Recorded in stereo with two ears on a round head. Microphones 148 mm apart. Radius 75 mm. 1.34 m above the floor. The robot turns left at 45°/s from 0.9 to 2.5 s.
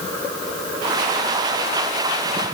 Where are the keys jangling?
I don't hear keys jangling.